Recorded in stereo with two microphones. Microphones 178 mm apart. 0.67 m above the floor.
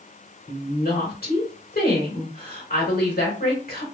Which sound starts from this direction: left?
A woman speaking, at 0.5 s.